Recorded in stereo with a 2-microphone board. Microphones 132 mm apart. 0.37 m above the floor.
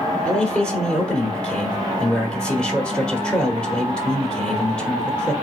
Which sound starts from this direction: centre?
A man speaking, at 0.2 s.